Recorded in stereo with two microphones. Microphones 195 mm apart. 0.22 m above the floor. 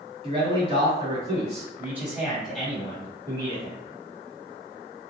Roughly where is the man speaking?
Right.